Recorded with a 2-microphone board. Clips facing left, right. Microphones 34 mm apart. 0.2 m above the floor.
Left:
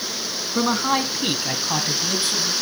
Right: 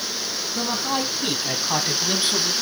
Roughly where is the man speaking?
Left.